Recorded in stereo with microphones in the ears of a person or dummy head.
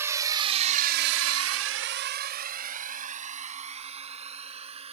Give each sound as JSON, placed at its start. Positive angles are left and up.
{"t": 0.0, "sound": "a drone", "side_deg": -15}